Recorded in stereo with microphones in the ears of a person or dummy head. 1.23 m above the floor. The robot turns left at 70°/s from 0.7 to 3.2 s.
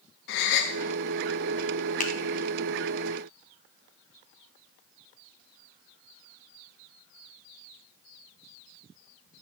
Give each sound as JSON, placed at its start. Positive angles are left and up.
{"t": 0.3, "sound": "a gasp", "side_deg": 65, "distance_m": 0.8}
{"t": 2.0, "sound": "a finger snap", "side_deg": 40, "distance_m": 0.7}